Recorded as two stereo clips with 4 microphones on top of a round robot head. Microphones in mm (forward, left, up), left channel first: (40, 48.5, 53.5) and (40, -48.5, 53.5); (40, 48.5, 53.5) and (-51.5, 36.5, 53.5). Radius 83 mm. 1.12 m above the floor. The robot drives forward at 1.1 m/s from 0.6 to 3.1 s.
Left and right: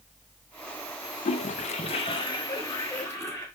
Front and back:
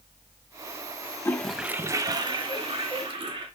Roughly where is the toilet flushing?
Left.